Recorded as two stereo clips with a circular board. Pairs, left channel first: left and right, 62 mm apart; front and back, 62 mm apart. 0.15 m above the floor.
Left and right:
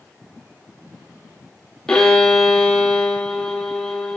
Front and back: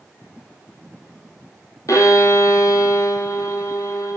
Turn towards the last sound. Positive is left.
turn(degrees=10)